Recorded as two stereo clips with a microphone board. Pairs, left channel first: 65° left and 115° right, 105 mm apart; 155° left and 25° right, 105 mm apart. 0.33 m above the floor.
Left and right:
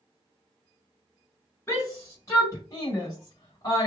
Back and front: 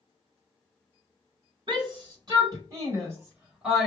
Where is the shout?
5° left, 1.8 m; by 3.9 s 70° left, 1.1 m.